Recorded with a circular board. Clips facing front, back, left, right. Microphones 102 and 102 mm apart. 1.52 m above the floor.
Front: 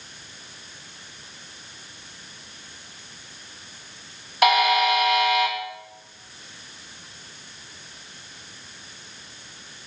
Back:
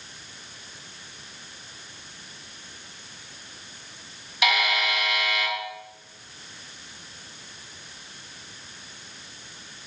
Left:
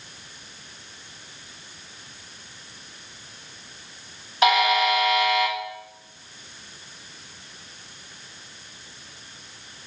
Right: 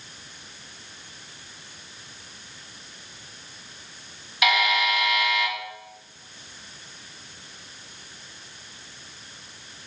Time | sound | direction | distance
4.4 | a buzzer | 40° left | 1.9 m